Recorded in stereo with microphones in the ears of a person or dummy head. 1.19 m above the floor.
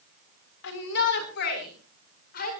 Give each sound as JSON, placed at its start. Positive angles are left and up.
{"t": 0.6, "sound": "a shout", "side_deg": 65, "distance_m": 4.5}